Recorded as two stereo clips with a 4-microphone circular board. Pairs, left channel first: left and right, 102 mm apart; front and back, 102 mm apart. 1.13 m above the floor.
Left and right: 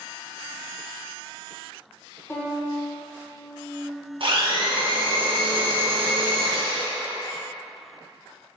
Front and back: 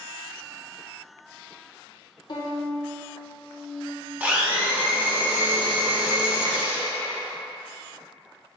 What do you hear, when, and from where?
2.3 s a violin: 30° left, 1.0 m
4.2 s a blender: 105° right, 0.8 m